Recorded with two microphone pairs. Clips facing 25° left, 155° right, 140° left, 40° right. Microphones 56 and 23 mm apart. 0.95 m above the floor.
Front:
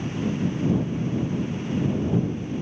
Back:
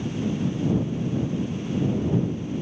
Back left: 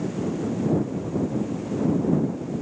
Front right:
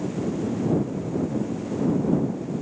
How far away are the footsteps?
I don't hear footsteps.